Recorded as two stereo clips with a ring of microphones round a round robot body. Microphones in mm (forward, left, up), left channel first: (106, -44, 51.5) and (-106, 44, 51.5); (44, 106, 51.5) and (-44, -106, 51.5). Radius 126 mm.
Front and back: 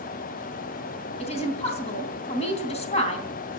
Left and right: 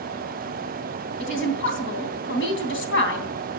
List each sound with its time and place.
1.2 s a woman speaking: 40° left, 3 m